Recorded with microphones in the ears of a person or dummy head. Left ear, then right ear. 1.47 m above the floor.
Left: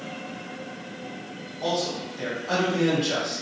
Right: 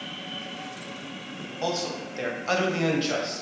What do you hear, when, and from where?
1.6 s a man speaking: 65° right (ahead or behind), 0.8 m; by 3.4 s 25° right (ahead or behind), 0.7 m